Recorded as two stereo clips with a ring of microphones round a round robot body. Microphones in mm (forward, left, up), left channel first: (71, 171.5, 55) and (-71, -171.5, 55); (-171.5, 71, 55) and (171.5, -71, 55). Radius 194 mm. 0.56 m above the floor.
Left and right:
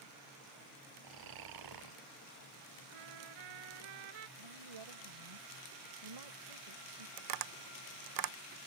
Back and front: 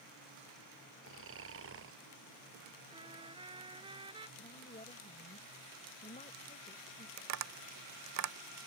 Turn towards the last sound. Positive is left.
turn(degrees=-75)